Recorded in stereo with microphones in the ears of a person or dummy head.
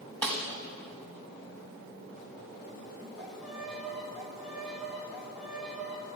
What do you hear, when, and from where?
0.2 s a snare drum: 10° left (ahead or behind), 1.3 m
3.2 s a violin: centre (ahead or behind), 1.4 m